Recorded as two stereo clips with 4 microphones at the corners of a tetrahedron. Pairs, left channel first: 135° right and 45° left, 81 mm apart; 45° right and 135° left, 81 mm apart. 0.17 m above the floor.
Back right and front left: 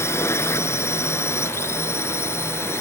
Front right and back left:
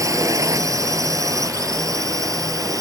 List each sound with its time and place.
0.0 s a drone: 175° left; by 2.8 s 170° left